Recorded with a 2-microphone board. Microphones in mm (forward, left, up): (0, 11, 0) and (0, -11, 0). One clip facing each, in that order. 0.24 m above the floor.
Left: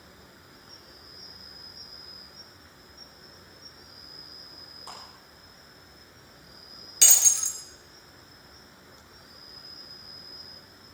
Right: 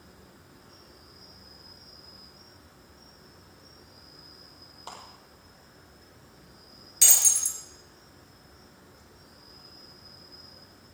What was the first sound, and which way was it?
An insect, 65° left (ahead or behind).